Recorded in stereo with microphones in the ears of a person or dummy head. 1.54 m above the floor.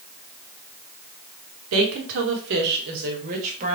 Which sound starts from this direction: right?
A woman speaking, at 1.7 s.